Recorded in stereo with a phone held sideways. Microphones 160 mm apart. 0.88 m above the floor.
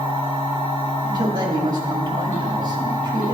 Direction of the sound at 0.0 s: 10° left (ahead or behind).